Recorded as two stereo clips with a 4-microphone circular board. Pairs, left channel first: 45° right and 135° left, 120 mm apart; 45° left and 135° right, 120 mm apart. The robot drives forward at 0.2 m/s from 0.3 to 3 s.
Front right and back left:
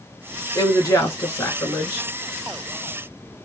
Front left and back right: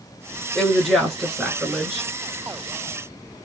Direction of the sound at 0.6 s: 40° right.